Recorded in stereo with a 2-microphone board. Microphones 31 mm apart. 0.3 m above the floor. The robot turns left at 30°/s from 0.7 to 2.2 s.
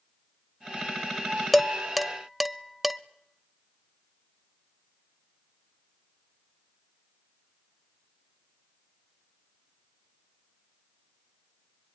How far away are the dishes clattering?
About 0.6 m.